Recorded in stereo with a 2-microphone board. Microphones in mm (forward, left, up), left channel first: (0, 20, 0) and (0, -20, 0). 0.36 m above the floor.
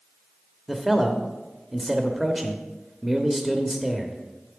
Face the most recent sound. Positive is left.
turn(degrees=-5)  # may be behind; listen again after turning